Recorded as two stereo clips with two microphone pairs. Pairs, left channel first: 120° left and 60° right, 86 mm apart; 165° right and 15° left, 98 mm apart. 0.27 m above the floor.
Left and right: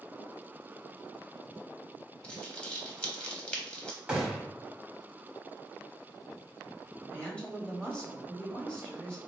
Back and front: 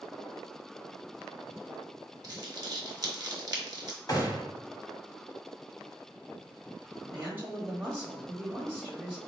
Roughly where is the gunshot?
Behind right.